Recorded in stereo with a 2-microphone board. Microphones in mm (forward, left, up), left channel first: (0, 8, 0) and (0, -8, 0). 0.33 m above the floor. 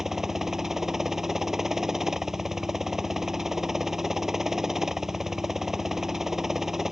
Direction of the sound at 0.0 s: 30° right (ahead or behind).